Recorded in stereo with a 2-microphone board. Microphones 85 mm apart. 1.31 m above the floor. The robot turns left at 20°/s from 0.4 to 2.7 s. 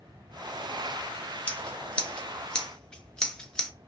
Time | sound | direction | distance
1.5 | scissors | 15° left (ahead or behind) | 0.5 m